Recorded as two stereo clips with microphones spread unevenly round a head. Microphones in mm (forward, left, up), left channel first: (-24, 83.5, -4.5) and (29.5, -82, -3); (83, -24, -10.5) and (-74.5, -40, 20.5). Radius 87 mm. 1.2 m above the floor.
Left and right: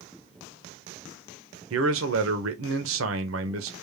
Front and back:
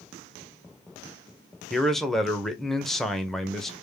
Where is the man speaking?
80° right, 0.8 m.